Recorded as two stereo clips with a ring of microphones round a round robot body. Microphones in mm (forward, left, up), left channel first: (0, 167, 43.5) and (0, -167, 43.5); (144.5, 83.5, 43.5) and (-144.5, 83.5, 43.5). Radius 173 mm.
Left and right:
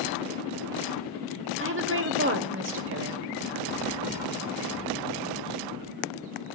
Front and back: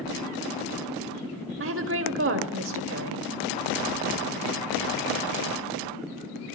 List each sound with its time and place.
1.6 s a woman speaking: 140° right, 1.9 m